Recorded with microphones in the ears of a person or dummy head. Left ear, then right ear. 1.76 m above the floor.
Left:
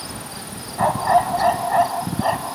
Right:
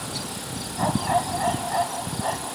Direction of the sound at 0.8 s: 15° left (ahead or behind).